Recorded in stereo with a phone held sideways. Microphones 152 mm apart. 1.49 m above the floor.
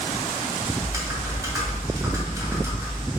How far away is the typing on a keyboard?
About 2.5 m.